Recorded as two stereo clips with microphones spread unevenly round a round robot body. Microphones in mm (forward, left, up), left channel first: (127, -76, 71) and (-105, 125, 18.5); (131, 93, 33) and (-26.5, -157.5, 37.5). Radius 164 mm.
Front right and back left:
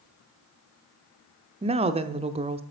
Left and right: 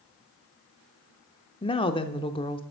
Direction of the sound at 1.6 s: 110° left.